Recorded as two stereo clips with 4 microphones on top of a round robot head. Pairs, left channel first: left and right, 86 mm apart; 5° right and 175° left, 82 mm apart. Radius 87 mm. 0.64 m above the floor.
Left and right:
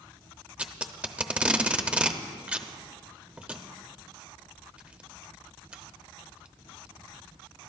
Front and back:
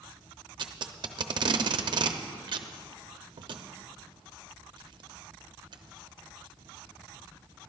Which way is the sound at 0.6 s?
165° right.